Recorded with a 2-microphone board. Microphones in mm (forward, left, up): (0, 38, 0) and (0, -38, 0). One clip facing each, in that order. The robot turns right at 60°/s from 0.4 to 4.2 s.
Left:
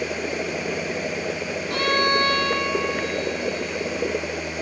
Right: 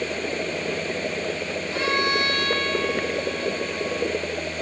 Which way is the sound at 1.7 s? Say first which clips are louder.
Left 3 dB; 110° left.